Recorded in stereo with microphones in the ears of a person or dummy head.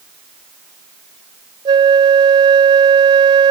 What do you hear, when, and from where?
1.6 s a flute: 30° right (ahead or behind), 0.6 m